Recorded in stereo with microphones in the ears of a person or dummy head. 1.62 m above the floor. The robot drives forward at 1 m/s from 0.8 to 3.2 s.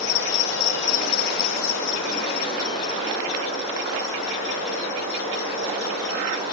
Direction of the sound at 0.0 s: 60° left (ahead or behind).